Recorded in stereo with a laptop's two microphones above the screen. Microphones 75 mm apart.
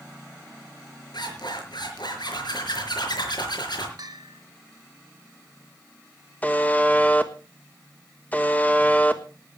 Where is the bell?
65° right (ahead or behind), 2 m.